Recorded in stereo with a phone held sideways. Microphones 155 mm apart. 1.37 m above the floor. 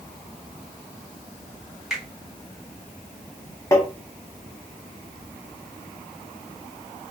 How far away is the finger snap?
About 1.7 m.